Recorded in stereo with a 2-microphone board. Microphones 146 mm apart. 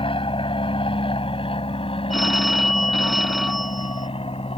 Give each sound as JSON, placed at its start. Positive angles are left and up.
{"t": 0.0, "sound": "an aircraft", "side_deg": 35}
{"t": 2.1, "sound": "a phone ringing", "side_deg": 0}